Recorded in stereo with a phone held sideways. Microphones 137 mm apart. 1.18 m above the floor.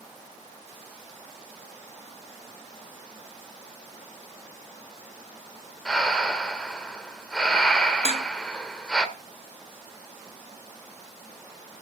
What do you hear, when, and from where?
5.8 s breathing: 5° left (ahead or behind), 1.5 m
8.1 s dishes clattering: 50° left (ahead or behind), 0.9 m